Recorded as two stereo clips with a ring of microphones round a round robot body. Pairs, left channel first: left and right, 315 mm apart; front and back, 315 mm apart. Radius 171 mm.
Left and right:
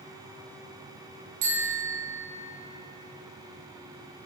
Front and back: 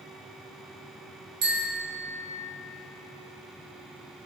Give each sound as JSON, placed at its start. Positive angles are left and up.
{"t": 1.4, "sound": "a bicycle bell", "azimuth_deg": -120, "distance_m": 5.5}